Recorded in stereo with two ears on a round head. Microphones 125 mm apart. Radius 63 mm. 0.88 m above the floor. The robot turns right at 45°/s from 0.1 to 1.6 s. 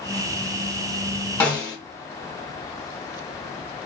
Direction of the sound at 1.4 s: 15° left (ahead or behind).